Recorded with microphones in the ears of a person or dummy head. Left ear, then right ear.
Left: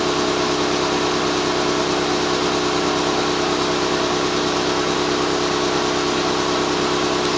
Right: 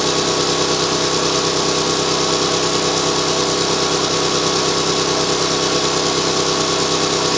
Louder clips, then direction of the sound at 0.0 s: Right 2 dB; 25° right (ahead or behind).